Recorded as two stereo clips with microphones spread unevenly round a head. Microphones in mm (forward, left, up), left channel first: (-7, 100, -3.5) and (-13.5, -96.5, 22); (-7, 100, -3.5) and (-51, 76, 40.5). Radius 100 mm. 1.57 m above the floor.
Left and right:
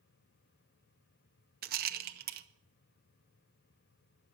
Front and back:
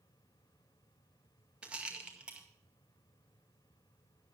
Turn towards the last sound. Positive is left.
turn(degrees=-115)